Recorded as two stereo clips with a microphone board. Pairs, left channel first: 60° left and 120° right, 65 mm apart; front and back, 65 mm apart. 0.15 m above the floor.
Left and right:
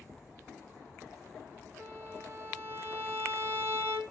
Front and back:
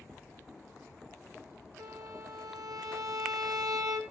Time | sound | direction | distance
1.8 | a violin | 165° right | 2 m